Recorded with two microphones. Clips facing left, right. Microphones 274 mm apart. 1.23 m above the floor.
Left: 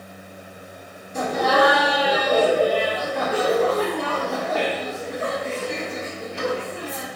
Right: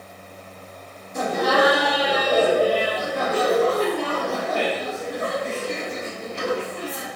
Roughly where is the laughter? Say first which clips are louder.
Even; centre.